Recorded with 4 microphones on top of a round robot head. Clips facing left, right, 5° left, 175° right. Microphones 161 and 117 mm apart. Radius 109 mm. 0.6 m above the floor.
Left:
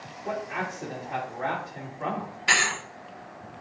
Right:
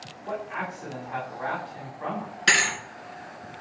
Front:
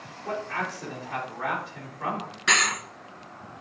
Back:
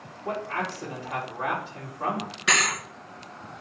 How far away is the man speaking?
About 2.5 m.